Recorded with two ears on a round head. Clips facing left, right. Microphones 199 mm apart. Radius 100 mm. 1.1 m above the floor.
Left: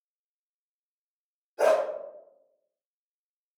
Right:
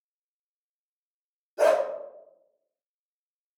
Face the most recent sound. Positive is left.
turn(degrees=-60)  # may be behind; listen again after turning